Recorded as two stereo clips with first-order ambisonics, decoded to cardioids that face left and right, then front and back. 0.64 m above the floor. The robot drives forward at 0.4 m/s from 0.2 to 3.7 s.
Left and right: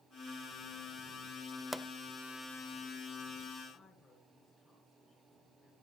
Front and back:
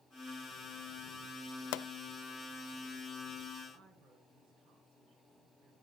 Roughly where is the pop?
Ahead.